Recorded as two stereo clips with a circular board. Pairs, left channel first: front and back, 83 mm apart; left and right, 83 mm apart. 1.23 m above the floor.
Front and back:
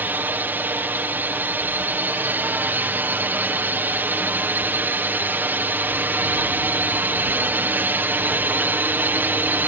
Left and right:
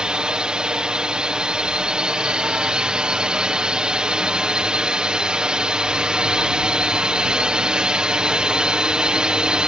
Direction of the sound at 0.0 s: 155° right.